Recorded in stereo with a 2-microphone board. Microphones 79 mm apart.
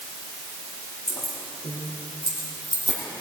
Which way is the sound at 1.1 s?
60° left (ahead or behind).